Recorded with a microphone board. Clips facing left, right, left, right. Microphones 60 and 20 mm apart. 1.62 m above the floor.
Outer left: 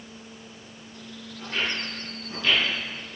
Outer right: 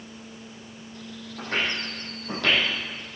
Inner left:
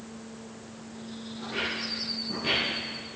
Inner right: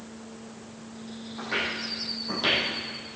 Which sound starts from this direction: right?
Footsteps, at 1.4 s.